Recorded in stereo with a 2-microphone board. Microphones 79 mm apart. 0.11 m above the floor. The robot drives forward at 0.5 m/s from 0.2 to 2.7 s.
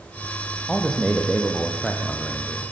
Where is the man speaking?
Centre (ahead or behind), 4.5 m.